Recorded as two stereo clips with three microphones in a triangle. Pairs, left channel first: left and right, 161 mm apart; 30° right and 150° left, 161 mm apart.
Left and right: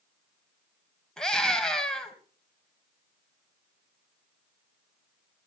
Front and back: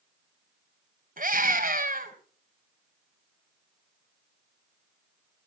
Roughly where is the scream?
Behind.